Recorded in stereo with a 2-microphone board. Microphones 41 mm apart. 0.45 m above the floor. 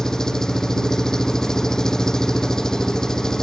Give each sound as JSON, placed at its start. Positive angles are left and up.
{"t": 0.0, "sound": "an engine running", "side_deg": 15}